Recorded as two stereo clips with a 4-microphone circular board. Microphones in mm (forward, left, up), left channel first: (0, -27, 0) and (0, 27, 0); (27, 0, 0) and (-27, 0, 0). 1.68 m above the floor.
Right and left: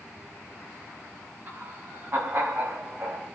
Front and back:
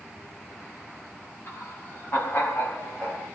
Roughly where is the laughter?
Ahead left.